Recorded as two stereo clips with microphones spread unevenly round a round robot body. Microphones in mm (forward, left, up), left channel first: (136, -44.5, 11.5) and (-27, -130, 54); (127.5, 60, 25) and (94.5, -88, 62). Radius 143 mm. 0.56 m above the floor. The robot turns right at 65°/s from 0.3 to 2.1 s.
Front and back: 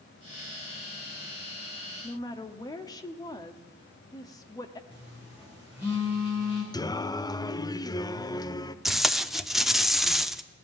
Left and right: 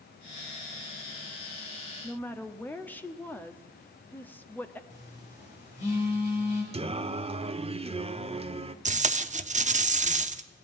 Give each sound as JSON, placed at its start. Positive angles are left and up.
{"t": 2.0, "sound": "a woman speaking", "azimuth_deg": 35, "distance_m": 1.0}
{"t": 4.9, "sound": "a phone buzzing", "azimuth_deg": 120, "distance_m": 3.5}
{"t": 6.7, "sound": "singing", "azimuth_deg": -45, "distance_m": 0.7}
{"t": 8.8, "sound": "tape being pulled", "azimuth_deg": -55, "distance_m": 0.8}